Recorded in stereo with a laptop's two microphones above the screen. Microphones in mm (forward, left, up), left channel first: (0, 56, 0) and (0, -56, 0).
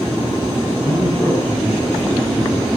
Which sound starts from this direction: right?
A man speaking, at 0.8 s.